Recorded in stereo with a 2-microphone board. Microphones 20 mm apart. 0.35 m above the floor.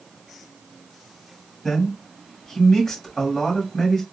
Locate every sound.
1.6 s a man speaking: 30° left (ahead or behind), 2 m